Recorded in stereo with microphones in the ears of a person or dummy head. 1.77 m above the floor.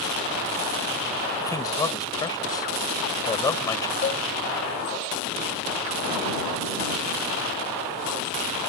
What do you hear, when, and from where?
1.4 s a man speaking: 20° left (ahead or behind)
4.0 s a cowbell: 35° left (ahead or behind)